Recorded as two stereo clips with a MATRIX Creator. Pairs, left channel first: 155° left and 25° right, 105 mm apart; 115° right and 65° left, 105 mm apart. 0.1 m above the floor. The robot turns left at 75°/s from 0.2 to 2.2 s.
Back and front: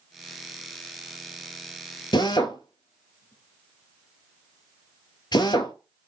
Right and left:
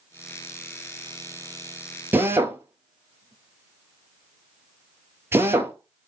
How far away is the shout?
No shout in this recording.